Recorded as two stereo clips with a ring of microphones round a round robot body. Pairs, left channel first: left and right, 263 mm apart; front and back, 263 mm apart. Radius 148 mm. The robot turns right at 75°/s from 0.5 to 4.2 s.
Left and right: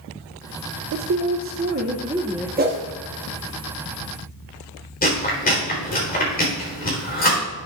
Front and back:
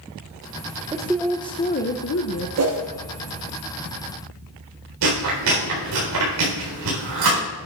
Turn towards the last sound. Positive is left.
turn(degrees=145)